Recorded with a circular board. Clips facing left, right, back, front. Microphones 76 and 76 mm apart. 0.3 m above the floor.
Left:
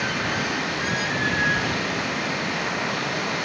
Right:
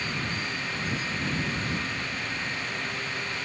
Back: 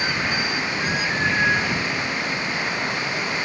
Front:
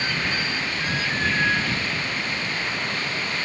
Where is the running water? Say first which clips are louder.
Left 7 dB, back 2 dB; 105° left.